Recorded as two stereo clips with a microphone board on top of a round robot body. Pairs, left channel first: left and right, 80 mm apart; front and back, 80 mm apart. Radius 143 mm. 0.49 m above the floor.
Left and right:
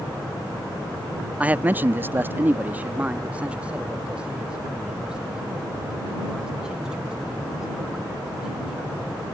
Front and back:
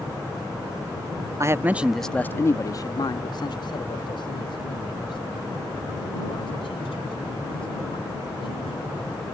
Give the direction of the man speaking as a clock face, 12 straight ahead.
5 o'clock.